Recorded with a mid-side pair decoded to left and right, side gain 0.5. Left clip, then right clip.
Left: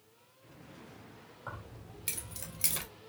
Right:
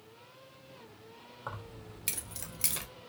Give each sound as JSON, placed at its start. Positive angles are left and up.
{"t": 1.5, "sound": "keys jangling", "azimuth_deg": -40, "distance_m": 1.7}